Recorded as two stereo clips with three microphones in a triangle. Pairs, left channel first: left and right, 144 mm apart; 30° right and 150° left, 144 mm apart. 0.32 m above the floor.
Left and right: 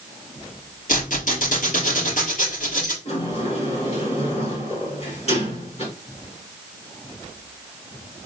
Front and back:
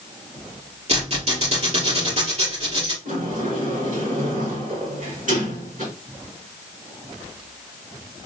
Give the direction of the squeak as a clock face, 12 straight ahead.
8 o'clock.